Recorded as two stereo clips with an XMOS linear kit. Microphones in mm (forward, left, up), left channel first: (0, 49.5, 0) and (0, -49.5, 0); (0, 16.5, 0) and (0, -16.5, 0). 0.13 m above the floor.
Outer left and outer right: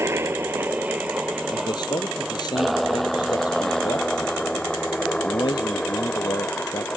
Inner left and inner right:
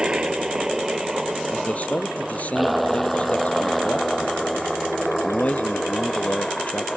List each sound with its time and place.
0.0 s a helicopter: 25° right (ahead or behind); by 7.0 s 15° left (ahead or behind)
1.5 s a man speaking: 45° left (ahead or behind)